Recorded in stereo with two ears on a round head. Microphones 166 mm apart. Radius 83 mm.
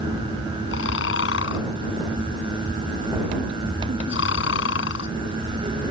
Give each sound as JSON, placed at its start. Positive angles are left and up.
{"t": 0.7, "sound": "snoring", "side_deg": 75}